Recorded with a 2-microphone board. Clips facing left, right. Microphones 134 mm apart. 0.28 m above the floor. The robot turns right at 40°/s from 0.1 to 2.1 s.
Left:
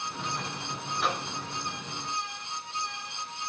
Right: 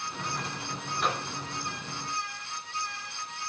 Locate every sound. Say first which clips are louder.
1.0 s a microwave: even; centre (ahead or behind), 1.0 m; by 1.3 s 5° left (ahead or behind), 1.0 m